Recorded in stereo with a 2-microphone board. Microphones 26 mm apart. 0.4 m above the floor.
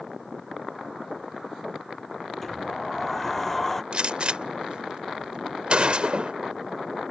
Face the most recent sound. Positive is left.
turn(degrees=-45)  # may be behind; listen again after turning